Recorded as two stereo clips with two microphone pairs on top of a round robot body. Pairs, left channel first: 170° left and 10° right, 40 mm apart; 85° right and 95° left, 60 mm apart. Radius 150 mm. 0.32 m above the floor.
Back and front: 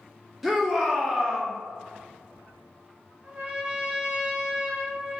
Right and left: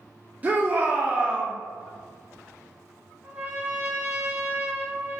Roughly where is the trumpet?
Ahead left.